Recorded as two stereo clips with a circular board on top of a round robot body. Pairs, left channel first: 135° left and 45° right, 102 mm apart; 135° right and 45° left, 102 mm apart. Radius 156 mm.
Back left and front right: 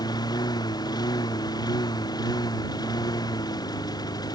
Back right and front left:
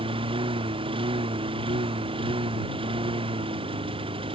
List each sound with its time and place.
0.0 s a lawn mower: 80° left